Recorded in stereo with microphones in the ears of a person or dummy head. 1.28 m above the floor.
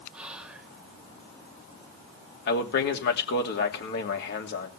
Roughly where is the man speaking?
Left.